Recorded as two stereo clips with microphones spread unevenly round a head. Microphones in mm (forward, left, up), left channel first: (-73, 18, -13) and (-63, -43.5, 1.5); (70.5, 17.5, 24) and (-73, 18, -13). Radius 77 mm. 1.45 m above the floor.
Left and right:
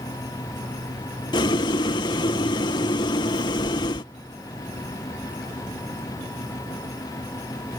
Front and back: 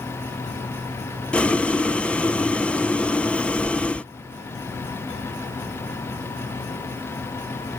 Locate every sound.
1.3 s boiling: 85° left